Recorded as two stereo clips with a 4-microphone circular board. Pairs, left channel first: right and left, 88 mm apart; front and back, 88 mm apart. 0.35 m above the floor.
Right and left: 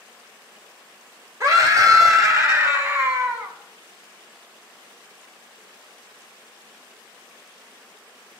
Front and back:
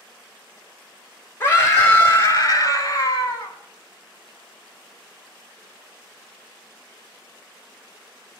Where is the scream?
55° left, 1.7 m; by 3.5 s 45° left, 3 m.